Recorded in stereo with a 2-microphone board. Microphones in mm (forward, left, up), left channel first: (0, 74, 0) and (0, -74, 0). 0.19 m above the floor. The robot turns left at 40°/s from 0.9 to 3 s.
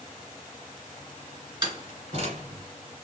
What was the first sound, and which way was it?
A door slam, 30° right (ahead or behind).